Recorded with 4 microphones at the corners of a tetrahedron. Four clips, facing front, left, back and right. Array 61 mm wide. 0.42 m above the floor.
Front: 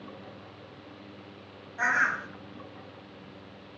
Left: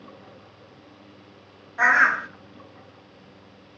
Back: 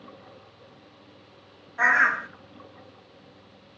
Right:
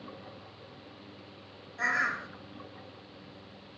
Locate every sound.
1.8 s a bird: 105° left, 0.8 m